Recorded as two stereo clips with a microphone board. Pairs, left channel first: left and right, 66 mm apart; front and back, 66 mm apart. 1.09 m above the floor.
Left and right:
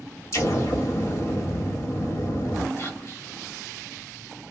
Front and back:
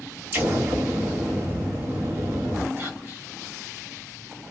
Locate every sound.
0.3 s an explosion: 125° left, 1.3 m
2.8 s whispering: 130° left, 1.3 m